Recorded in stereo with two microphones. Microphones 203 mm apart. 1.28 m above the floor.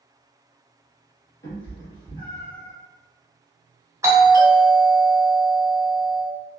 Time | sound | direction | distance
1.4 | a cat meowing | 70° left (ahead or behind) | 1.3 m
4.0 | a doorbell | 15° right (ahead or behind) | 0.9 m